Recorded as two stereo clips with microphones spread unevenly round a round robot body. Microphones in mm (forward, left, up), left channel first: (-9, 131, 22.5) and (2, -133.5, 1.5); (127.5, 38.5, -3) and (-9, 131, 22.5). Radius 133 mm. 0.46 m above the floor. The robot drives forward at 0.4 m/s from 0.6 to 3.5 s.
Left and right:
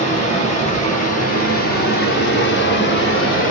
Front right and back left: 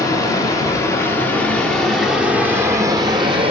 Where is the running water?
30° left, 1.5 m; by 3.5 s 95° left, 1.0 m.